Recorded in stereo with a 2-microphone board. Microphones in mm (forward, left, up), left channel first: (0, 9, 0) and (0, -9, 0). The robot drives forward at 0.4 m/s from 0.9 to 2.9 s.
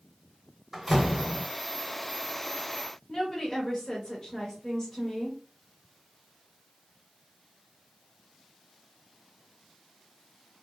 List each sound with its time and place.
0.7 s a door slam: 5° right (ahead or behind), 1.1 m
3.1 s a woman speaking: 35° left (ahead or behind), 1.2 m